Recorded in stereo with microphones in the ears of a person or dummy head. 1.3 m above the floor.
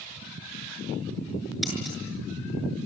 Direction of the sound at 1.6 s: Centre (ahead or behind).